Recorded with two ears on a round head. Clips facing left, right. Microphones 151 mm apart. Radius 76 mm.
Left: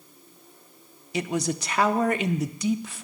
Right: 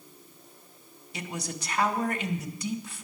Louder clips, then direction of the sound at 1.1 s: Left 10 dB; 60° left (ahead or behind).